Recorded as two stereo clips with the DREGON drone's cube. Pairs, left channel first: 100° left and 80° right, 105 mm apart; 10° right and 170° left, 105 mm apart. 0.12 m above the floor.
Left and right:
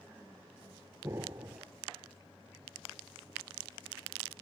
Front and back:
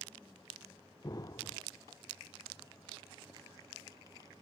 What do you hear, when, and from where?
1.0 s an explosion: 35° right, 0.6 m